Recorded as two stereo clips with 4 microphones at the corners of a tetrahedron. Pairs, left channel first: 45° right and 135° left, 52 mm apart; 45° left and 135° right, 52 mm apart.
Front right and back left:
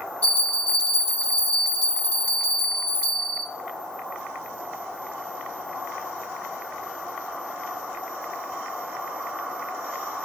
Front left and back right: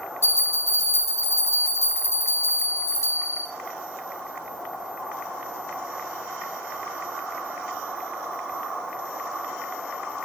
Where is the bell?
20° left, 5 m.